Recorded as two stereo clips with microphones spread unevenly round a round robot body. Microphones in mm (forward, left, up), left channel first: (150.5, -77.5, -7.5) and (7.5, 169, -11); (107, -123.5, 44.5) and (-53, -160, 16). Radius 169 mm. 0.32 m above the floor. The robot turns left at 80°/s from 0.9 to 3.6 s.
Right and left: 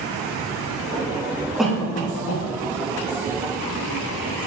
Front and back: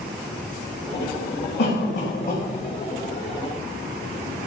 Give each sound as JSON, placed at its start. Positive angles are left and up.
{"t": 1.6, "sound": "a cough", "azimuth_deg": 30, "distance_m": 3.0}